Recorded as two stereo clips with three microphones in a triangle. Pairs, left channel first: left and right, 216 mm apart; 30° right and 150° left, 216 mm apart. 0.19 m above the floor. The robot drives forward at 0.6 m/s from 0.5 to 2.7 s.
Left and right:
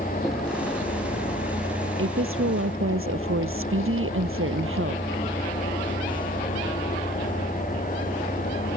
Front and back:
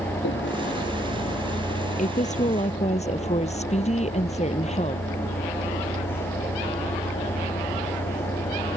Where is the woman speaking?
85° right; by 5.0 s 90° right.